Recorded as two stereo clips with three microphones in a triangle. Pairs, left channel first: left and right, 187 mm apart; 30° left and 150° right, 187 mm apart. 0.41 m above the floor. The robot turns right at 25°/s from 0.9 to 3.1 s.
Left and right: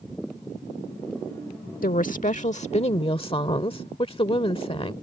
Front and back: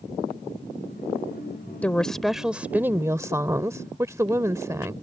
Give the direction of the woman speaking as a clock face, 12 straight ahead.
8 o'clock.